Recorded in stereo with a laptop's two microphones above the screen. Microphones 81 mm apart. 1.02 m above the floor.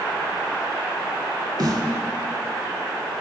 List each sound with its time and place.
1.6 s a snare drum: 50° right (ahead or behind), 1.1 m